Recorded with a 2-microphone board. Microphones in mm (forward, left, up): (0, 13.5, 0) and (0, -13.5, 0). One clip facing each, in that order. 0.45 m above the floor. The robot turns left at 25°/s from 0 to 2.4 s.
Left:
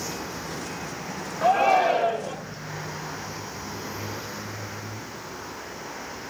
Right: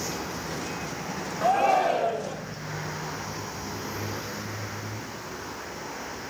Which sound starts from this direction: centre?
A shout, at 1.4 s.